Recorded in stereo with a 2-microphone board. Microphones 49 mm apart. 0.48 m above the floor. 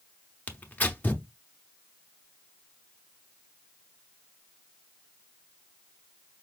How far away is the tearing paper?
About 0.7 m.